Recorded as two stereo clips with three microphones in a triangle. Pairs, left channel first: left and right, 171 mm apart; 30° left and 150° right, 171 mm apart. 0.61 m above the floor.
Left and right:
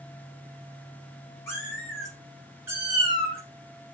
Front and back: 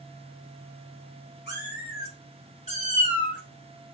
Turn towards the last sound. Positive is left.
turn(degrees=-40)